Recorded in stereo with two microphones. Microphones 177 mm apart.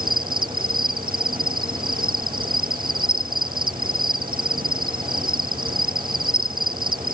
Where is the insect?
55° right (ahead or behind).